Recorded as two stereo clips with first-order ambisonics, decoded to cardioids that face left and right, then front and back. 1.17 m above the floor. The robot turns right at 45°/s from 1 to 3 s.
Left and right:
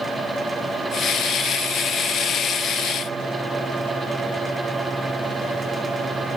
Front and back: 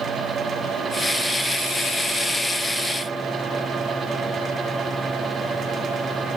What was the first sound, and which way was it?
Only background noise.